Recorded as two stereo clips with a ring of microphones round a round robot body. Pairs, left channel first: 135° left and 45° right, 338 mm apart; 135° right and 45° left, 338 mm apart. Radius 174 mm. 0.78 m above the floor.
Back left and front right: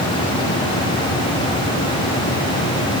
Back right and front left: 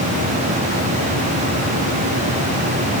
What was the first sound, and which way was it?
Only background noise.